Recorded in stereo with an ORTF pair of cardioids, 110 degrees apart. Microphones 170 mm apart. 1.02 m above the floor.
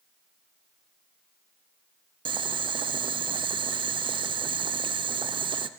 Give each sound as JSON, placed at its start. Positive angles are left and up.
{"t": 2.2, "sound": "boiling", "azimuth_deg": -30, "distance_m": 0.6}